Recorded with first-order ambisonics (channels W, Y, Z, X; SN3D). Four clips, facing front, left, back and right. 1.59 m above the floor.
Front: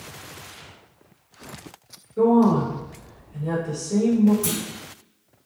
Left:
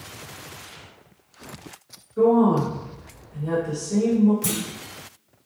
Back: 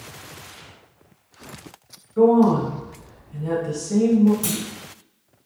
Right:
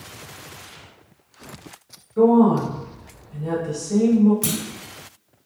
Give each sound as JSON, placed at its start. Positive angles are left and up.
{"t": 2.2, "sound": "a woman speaking", "azimuth_deg": -140, "distance_m": 1.3}
{"t": 4.4, "sound": "a clunk", "azimuth_deg": -110, "distance_m": 0.9}